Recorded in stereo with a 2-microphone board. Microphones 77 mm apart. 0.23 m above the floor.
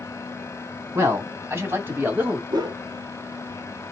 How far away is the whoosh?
About 0.7 m.